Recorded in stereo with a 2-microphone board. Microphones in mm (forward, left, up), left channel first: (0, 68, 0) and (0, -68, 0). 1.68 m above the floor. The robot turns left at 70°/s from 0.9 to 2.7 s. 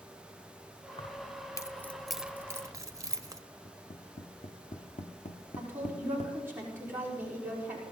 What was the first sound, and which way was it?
Keys jangling, 40° left (ahead or behind).